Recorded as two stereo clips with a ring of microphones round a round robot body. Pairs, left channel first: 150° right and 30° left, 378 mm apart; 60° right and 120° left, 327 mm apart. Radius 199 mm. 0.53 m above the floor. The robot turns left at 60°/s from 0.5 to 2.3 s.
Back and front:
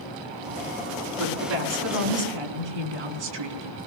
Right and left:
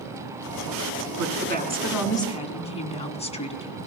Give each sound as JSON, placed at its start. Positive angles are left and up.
{"t": 1.1, "sound": "a woman speaking", "azimuth_deg": 85, "distance_m": 4.5}